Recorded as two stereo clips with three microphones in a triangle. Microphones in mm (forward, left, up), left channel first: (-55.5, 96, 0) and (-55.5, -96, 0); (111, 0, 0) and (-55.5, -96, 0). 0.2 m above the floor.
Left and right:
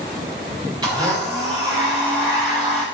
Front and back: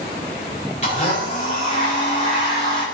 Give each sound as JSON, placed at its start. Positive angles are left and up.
{"t": 0.8, "sound": "a blender", "azimuth_deg": -25, "distance_m": 7.5}